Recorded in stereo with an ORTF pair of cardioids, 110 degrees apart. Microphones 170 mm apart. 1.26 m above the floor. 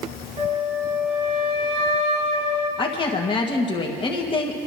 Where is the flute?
45° right, 3.5 m.